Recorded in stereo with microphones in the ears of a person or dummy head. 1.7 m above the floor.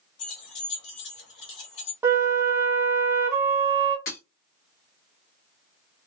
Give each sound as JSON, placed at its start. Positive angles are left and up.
{"t": 0.2, "sound": "keys jangling", "side_deg": 65, "distance_m": 2.0}
{"t": 2.0, "sound": "a flute", "side_deg": -15, "distance_m": 0.9}
{"t": 4.1, "sound": "breaking glass", "side_deg": 45, "distance_m": 1.3}